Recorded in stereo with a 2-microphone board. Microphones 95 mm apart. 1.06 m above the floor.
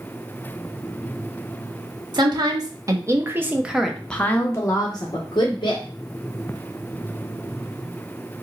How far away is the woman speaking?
About 1.2 m.